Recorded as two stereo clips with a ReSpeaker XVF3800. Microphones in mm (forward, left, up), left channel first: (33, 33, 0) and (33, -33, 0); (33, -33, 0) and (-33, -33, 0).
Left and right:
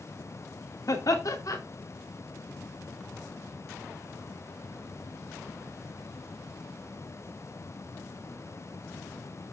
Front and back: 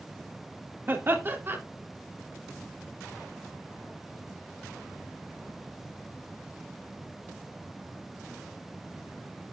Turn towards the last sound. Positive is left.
turn(degrees=125)